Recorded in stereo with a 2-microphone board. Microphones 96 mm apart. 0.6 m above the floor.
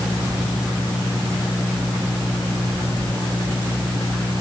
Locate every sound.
Only background noise.